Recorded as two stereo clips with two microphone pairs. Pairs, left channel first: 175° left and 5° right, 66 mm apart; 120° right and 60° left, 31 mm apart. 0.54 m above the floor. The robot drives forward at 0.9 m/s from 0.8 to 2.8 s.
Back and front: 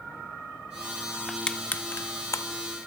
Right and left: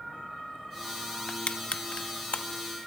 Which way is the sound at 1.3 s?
95° right.